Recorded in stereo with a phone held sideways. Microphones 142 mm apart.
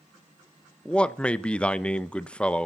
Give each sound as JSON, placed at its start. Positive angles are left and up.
{"t": 0.8, "sound": "a man speaking", "side_deg": 10, "distance_m": 0.6}